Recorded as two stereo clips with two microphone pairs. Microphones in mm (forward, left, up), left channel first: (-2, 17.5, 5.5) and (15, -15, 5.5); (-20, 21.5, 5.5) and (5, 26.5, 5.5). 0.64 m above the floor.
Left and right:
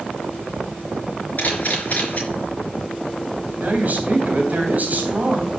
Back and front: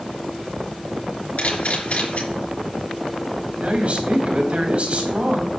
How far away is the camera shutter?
About 4.5 m.